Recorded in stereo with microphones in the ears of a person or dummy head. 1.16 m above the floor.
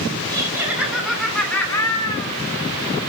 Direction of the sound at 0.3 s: 20° right (ahead or behind).